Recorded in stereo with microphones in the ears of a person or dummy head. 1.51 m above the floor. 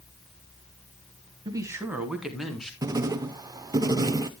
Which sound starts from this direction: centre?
Writing, at 2.8 s.